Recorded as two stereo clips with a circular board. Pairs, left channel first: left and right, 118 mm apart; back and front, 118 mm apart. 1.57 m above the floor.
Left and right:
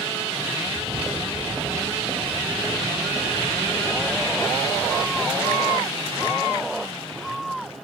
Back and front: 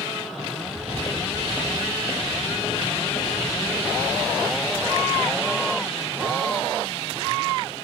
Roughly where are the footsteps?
Behind right.